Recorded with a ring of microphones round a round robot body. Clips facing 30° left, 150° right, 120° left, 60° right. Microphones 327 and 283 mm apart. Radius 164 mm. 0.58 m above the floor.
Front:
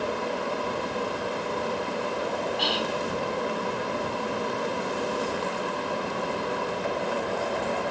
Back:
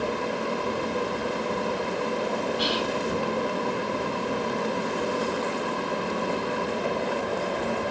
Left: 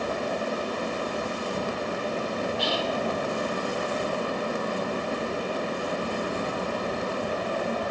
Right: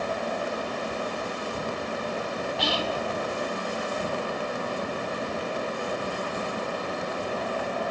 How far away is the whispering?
About 2 m.